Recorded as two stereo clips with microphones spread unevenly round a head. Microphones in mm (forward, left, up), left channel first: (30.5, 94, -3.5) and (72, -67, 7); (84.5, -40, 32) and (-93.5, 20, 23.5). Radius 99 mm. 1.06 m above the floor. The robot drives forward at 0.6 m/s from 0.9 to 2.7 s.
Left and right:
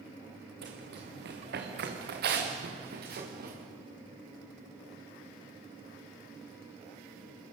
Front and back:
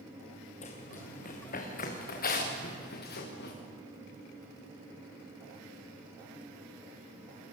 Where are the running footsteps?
70° right, 5 m; by 3.5 s 50° right, 6.5 m.